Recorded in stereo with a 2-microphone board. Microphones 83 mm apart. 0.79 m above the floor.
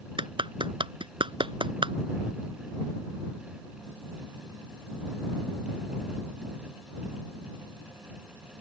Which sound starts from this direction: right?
A clap, at 0.2 s.